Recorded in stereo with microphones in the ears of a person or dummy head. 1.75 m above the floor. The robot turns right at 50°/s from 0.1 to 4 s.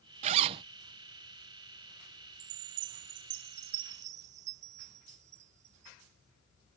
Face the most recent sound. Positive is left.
turn(degrees=-40)